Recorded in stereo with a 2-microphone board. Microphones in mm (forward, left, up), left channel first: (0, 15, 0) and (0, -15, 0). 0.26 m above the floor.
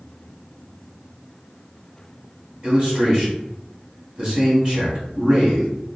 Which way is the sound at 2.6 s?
30° right (ahead or behind).